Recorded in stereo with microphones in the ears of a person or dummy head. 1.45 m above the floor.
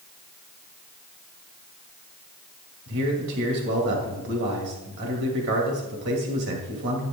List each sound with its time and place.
2.9 s a man speaking: 65° right (ahead or behind), 2.5 m